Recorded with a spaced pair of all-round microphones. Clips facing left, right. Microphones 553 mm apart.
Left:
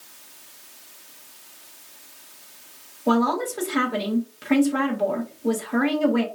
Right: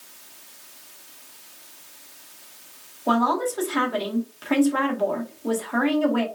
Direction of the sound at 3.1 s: 45° left (ahead or behind).